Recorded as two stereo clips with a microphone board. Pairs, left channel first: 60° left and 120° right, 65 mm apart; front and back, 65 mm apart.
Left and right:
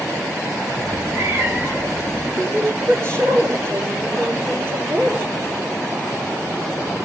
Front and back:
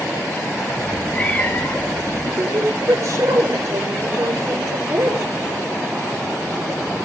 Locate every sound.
0.8 s a cat meowing: 80° right, 2.5 m; by 2.3 s 50° right, 2.5 m
2.4 s a woman speaking: 165° right, 8.5 m